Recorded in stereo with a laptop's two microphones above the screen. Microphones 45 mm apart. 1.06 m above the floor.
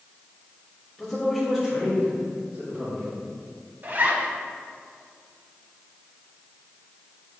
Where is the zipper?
40° right (ahead or behind), 1.0 m.